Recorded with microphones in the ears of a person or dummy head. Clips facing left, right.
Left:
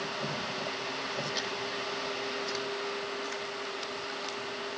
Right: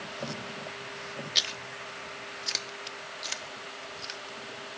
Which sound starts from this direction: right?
Chewing, at 1.4 s.